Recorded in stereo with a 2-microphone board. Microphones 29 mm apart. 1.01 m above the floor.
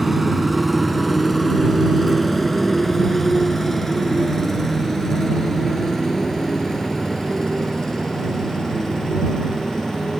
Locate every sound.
0.0 s a motorcycle: 5° right (ahead or behind); by 10.2 s 20° left (ahead or behind)